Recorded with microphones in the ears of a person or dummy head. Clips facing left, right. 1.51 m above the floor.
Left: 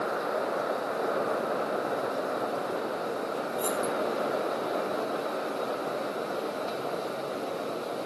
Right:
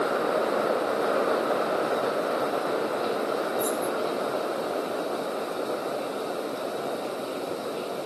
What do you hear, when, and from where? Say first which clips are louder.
3.6 s keys jangling: right 2 dB; 30° left (ahead or behind), 2.0 m